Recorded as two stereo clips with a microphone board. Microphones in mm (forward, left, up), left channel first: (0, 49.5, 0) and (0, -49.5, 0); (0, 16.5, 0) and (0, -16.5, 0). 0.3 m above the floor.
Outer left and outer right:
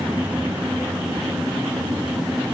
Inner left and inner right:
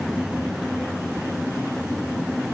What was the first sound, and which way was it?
Only background noise.